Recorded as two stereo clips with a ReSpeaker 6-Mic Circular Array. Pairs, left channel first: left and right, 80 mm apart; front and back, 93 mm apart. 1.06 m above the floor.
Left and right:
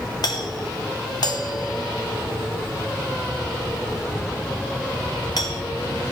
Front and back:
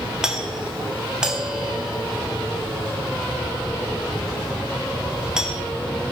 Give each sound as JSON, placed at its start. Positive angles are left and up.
{"t": 0.2, "sound": "a doorbell", "azimuth_deg": 100, "distance_m": 1.3}